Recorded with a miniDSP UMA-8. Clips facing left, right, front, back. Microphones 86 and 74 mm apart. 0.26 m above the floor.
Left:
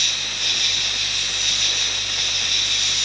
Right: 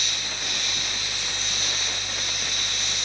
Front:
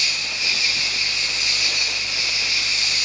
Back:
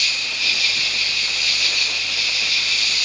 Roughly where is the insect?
Left.